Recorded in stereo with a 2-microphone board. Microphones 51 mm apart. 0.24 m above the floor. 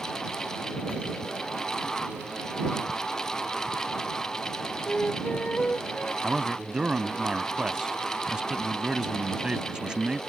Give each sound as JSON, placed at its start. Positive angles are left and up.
{"t": 4.9, "sound": "a flute", "side_deg": 25}
{"t": 6.2, "sound": "a man speaking", "side_deg": -15}